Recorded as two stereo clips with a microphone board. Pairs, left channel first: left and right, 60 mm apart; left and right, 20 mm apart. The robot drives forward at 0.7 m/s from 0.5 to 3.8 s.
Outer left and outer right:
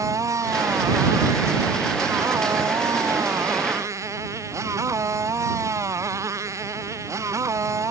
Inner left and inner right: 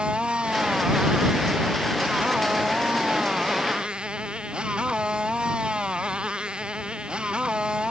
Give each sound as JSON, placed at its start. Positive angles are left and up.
{"t": 0.0, "sound": "a motorcycle", "side_deg": -60}